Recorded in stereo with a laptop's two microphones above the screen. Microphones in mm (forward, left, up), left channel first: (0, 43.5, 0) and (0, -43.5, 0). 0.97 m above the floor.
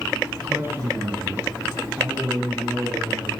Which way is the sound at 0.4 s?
25° right (ahead or behind).